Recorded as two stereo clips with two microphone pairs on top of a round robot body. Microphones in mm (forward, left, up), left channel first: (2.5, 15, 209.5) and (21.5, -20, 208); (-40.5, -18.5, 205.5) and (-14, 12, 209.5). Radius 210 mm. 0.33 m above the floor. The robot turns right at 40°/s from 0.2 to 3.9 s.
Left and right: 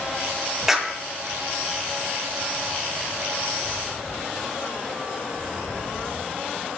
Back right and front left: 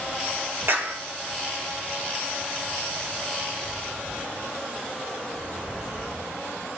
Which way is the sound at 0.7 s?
20° left.